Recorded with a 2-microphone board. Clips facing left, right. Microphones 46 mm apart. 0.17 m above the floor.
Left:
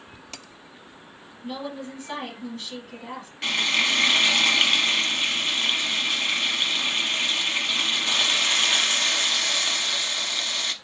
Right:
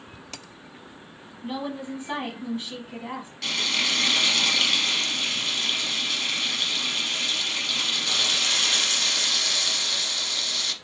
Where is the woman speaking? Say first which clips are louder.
Right 2 dB; 20° right (ahead or behind), 1.0 m.